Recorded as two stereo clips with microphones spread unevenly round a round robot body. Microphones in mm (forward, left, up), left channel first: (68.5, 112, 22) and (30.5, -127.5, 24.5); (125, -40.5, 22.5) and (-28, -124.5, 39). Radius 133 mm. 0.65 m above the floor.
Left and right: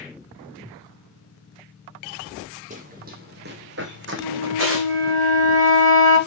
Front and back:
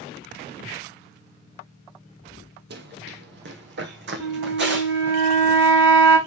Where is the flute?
155° right, 5 m.